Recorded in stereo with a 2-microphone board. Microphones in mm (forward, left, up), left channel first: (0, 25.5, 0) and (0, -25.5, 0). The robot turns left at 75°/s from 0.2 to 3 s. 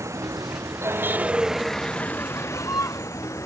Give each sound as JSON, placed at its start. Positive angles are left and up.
{"t": 0.0, "sound": "a vehicle", "side_deg": -75}